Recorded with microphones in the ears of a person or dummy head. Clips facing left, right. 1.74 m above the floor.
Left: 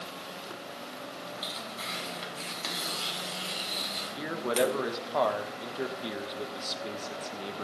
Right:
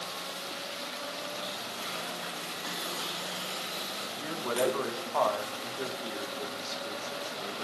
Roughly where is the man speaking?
Left.